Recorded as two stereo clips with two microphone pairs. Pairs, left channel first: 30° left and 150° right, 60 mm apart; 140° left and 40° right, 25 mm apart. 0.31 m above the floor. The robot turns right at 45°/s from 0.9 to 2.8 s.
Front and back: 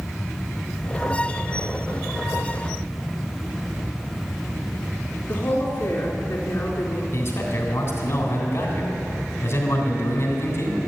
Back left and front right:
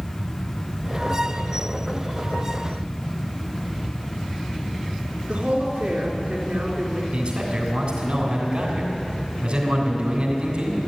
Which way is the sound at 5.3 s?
25° right.